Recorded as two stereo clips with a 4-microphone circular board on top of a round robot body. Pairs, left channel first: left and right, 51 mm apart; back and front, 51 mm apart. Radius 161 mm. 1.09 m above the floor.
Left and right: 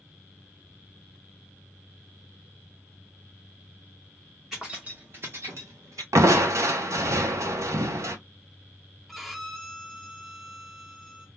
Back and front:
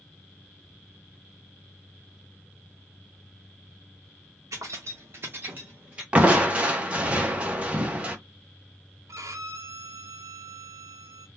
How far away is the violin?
About 0.5 m.